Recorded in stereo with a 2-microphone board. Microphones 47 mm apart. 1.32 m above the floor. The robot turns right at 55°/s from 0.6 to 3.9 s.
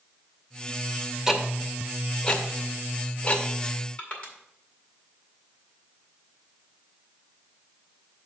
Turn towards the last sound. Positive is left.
turn(degrees=25)  # may be behind; listen again after turning